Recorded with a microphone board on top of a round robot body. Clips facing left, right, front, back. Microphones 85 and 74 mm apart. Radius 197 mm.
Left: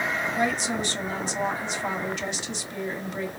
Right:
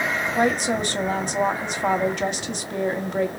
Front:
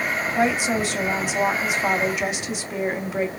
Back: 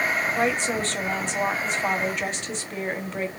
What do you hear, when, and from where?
0.3 s a woman speaking: 80° right, 1.2 m